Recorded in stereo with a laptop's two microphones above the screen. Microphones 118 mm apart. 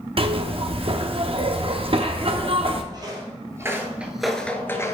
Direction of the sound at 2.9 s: 35° right (ahead or behind).